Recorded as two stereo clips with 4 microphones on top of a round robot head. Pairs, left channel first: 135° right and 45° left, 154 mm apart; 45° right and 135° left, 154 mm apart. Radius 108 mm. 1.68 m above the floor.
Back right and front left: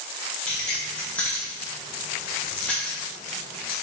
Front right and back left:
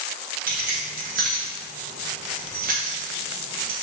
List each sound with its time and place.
0.5 s keys jangling: 145° left, 0.6 m